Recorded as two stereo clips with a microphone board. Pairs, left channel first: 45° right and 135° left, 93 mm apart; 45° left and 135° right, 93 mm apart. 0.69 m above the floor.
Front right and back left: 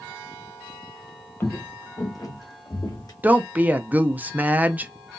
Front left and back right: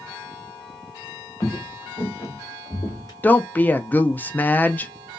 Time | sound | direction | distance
1.4 | footsteps | straight ahead | 0.8 m
3.2 | a woman speaking | 85° left | 0.5 m